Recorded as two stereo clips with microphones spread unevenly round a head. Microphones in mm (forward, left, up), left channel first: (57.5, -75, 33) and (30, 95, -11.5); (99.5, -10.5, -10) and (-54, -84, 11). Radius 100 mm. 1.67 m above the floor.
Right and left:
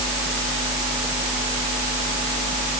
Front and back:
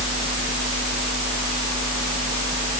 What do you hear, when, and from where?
Only background noise.